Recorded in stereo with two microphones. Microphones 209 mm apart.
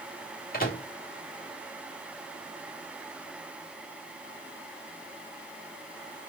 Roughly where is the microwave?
Left.